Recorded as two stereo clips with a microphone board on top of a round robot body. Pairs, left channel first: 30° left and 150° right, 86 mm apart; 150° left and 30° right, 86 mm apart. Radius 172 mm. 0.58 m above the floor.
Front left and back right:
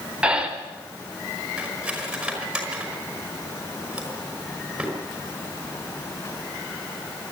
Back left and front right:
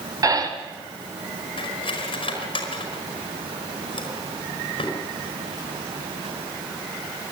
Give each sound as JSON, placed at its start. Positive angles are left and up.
{"t": 0.2, "sound": "breathing", "azimuth_deg": -75, "distance_m": 3.5}
{"t": 1.6, "sound": "cutlery clinking", "azimuth_deg": 130, "distance_m": 5.0}